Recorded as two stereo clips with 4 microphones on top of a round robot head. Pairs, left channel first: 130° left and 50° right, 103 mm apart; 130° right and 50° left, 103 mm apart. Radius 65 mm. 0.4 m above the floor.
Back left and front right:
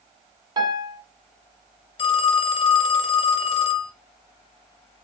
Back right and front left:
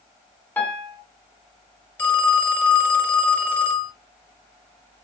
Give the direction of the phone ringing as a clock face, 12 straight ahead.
7 o'clock.